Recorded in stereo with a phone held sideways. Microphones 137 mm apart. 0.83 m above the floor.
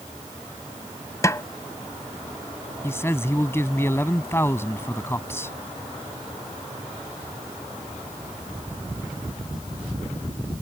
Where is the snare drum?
20° left (ahead or behind).